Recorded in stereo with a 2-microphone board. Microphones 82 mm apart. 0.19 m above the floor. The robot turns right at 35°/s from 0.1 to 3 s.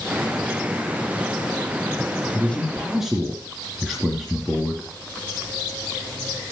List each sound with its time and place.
2.3 s a man speaking: 15° left (ahead or behind), 2.5 m; by 4.9 s 5° right (ahead or behind), 2.5 m